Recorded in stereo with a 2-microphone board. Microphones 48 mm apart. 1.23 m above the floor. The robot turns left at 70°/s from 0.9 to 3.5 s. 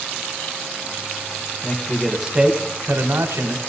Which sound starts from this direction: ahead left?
A man speaking, at 1.6 s.